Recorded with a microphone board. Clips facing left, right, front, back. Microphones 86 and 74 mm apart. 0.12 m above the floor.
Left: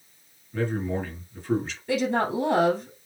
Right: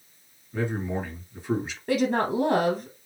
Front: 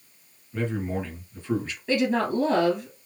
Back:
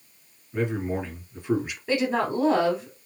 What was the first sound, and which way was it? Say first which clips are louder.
A man speaking: left 1 dB, back 2 dB; 140° right.